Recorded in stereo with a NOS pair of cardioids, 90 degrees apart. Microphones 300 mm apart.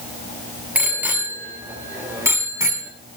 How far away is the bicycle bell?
About 6 m.